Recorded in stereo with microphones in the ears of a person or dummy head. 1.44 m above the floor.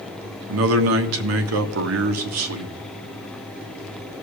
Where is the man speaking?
75° right (ahead or behind), 1.2 m.